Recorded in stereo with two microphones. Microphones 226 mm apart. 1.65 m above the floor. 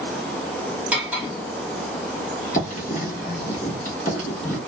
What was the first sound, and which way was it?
Cutlery clinking, 5° right (ahead or behind).